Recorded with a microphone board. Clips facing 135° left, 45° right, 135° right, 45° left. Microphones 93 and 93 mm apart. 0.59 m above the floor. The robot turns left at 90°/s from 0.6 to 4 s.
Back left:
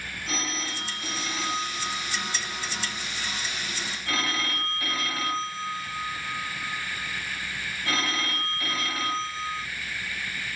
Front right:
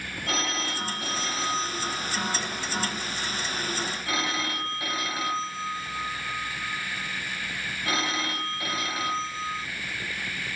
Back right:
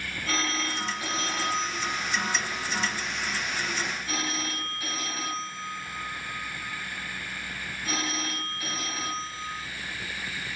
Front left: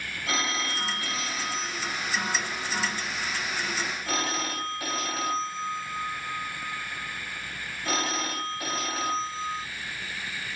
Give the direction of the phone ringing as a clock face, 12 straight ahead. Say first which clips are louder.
Front right 3 dB, even; 1 o'clock.